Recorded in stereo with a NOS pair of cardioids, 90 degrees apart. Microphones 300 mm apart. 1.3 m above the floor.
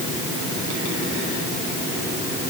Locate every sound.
Only background noise.